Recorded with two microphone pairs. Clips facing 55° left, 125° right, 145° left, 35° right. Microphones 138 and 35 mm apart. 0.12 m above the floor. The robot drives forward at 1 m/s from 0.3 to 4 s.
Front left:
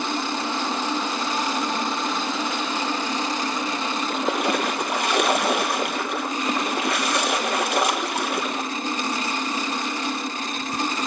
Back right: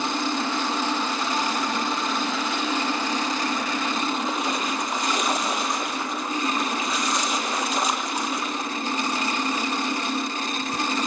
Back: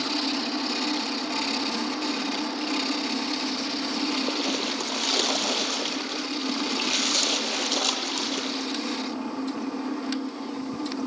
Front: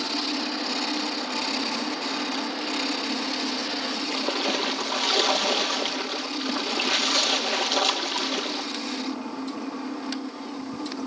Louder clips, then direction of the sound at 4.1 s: Front left 3 dB, front 4 dB; 40° left.